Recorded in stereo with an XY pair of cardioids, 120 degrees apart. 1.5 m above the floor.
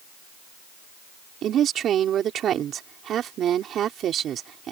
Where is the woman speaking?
55° right.